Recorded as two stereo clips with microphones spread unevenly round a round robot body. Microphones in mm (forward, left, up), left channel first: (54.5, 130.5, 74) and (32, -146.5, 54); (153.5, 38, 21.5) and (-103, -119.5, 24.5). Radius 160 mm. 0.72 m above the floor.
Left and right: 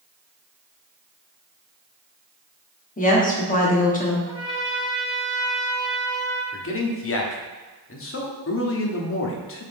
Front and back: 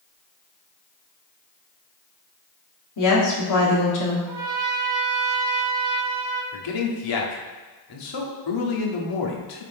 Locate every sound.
3.0 s a woman speaking: 25° left, 1.9 m
4.3 s a trumpet: 165° left, 0.9 m
6.5 s a man speaking: 40° left, 1.4 m